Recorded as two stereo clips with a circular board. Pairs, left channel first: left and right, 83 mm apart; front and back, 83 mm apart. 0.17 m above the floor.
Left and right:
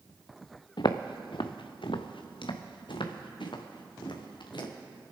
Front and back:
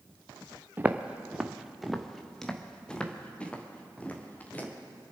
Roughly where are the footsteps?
Behind left.